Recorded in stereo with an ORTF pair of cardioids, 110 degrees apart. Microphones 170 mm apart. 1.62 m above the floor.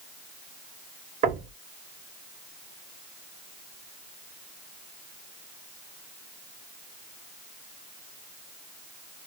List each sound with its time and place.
1.2 s knocking: 55° right, 1.2 m